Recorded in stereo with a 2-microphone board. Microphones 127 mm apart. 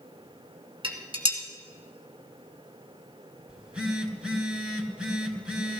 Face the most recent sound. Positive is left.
turn(degrees=-5)  # may be behind; listen again after turning